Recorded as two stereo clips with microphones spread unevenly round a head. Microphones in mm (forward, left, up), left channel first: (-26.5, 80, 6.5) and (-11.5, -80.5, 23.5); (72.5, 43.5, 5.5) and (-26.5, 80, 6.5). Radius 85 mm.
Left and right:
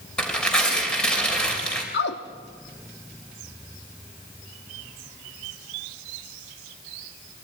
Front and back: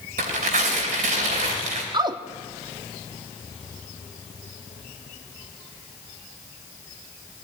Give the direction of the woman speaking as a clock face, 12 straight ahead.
8 o'clock.